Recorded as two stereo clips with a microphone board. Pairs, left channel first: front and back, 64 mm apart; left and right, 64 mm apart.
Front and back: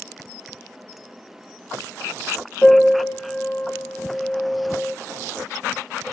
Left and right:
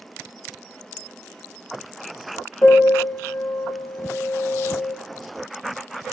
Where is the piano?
65° left, 0.6 m.